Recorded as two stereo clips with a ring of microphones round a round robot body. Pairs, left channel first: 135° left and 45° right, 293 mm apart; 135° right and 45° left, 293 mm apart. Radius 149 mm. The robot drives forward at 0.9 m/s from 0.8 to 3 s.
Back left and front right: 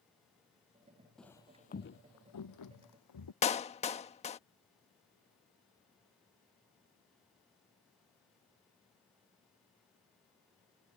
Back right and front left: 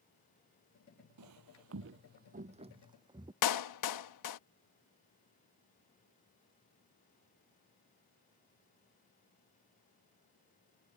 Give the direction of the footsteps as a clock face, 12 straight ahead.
10 o'clock.